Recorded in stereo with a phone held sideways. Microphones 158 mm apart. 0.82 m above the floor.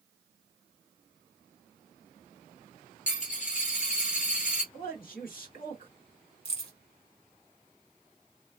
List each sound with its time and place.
3.1 s a dropped coin: 55° left (ahead or behind), 1.2 m
4.7 s a man speaking: 65° left (ahead or behind), 1.8 m
6.5 s keys jangling: 40° left (ahead or behind), 1.3 m